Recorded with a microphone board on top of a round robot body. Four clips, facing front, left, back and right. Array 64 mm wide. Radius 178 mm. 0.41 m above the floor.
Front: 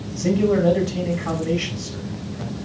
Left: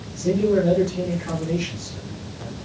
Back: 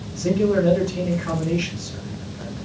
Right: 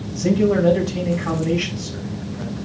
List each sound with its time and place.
0.2 s a man speaking: 45° right, 5 m